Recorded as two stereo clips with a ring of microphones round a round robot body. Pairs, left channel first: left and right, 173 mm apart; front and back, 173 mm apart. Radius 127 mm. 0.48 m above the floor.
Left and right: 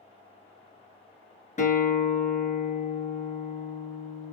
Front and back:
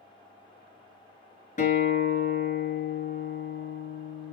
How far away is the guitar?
About 3.5 m.